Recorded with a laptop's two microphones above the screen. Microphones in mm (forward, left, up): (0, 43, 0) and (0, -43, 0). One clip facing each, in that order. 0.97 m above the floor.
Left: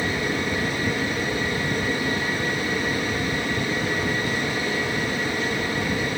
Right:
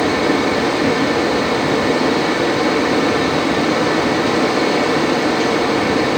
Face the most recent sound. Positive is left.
turn(degrees=-80)